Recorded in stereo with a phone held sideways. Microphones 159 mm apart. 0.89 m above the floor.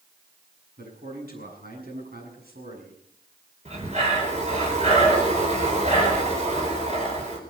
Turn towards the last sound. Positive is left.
turn(degrees=-45)  # may be behind; listen again after turning